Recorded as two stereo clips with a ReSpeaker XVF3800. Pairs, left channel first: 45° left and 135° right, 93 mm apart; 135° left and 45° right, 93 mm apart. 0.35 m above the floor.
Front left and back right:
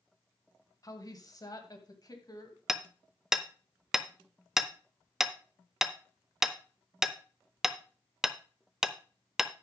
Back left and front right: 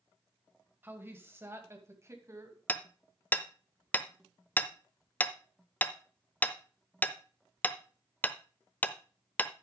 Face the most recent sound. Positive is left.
turn(degrees=150)